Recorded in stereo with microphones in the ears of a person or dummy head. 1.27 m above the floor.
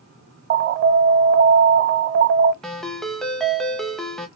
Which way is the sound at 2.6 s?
Centre (ahead or behind).